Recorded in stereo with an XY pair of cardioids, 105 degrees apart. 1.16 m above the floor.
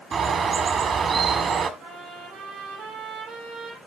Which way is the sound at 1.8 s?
70° right.